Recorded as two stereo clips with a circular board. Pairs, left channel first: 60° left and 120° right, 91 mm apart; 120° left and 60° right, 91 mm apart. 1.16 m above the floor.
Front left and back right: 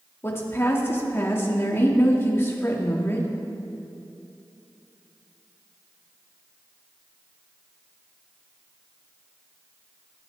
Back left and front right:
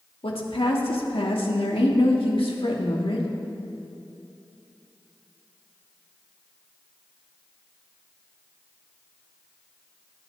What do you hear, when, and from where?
0.2 s a woman speaking: 125° left, 1.9 m